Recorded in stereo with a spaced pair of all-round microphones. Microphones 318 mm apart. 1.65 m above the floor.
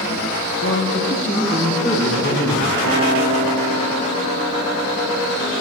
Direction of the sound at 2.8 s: 40° left (ahead or behind).